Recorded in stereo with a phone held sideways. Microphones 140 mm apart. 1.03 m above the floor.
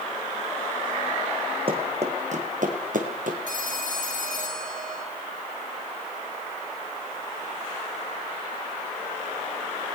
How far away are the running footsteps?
About 3 m.